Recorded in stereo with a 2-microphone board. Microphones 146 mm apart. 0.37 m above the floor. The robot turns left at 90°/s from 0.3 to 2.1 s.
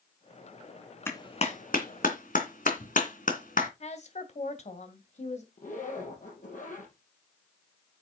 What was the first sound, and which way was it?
A clap, 15° left (ahead or behind).